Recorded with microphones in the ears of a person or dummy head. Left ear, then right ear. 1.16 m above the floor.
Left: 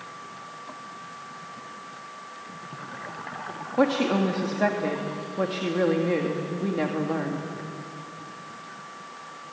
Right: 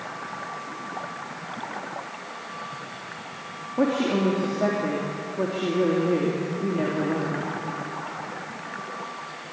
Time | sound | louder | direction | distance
3.8 | a woman speaking | left 1 dB | 80° left | 2.5 m